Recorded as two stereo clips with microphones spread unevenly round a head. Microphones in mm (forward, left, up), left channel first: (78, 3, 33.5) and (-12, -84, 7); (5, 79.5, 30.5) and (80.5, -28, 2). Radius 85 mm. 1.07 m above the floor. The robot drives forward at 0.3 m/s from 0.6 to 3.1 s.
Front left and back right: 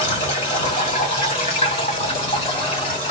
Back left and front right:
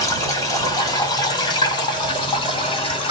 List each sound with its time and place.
0.0 s running water: 70° left, 1.8 m; by 3.1 s 100° left, 1.7 m